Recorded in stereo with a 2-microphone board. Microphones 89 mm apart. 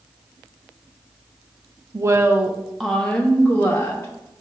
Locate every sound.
1.9 s a woman speaking: 40° right (ahead or behind), 0.5 m; by 4.1 s 25° left (ahead or behind), 1.3 m